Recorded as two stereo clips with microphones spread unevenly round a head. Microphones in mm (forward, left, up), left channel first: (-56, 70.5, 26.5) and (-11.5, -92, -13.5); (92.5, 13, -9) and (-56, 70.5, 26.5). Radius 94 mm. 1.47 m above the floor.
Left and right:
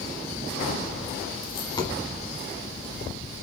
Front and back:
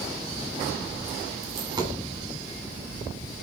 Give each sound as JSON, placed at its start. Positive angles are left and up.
{"t": 1.4, "sound": "a dropped coin", "azimuth_deg": 130, "distance_m": 1.7}